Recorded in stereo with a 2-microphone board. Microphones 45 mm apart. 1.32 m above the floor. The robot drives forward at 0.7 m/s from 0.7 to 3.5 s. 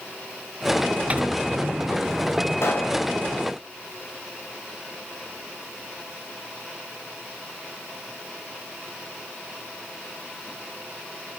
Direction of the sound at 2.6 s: 70° left (ahead or behind).